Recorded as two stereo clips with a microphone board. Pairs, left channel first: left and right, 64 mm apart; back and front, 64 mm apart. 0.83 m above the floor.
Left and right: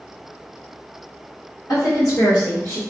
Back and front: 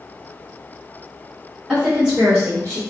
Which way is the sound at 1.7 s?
85° left.